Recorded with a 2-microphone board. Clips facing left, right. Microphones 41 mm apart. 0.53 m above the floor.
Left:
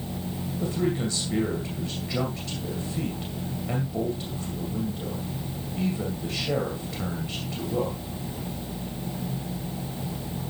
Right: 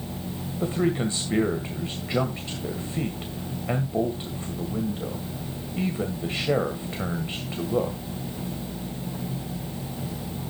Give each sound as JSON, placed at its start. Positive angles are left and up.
{"t": 0.6, "sound": "a man speaking", "side_deg": -30, "distance_m": 2.0}